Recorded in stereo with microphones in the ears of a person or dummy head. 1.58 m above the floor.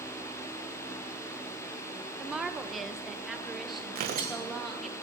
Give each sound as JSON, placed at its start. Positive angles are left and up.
{"t": 2.2, "sound": "a woman speaking", "side_deg": -5, "distance_m": 1.0}
{"t": 4.0, "sound": "tearing paper", "side_deg": -50, "distance_m": 1.4}